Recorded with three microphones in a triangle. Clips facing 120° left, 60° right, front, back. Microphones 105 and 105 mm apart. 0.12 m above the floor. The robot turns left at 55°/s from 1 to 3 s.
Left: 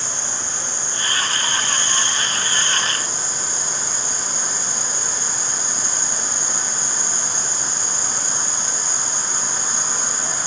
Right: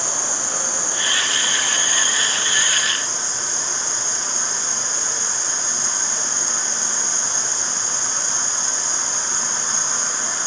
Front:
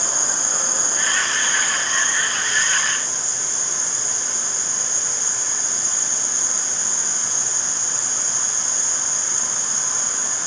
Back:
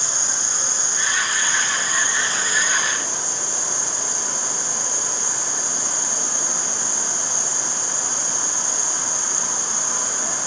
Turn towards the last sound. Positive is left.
turn(degrees=-155)